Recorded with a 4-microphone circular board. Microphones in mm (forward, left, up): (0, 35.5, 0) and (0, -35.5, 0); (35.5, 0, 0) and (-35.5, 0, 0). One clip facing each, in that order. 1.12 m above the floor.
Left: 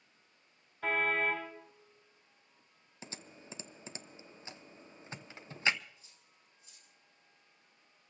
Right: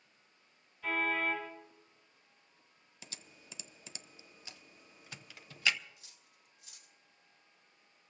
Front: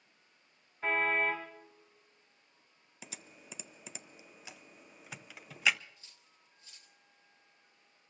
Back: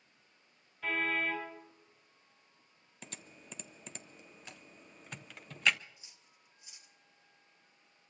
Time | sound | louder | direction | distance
0.8 | a car horn | left 2 dB, front 3 dB | 55° left | 3.5 m
3.0 | typing on a keyboard | left 6 dB, even | 80° left | 0.7 m
6.0 | cutlery clinking | right 1 dB, even | 110° right | 1.5 m